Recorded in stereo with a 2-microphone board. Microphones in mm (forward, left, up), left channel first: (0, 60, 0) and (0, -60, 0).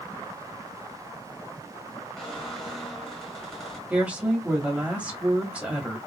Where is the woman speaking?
10° right (ahead or behind), 1.3 m.